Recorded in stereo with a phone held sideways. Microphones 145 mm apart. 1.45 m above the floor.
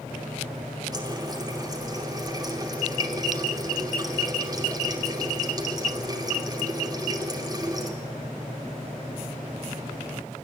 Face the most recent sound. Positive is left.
turn(degrees=-25)  # may be behind; listen again after turning